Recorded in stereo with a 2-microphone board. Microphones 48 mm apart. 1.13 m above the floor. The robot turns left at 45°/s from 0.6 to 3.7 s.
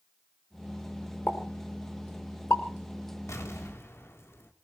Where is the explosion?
80° left, 2.5 m; by 4.5 s 65° left (ahead or behind), 2.5 m.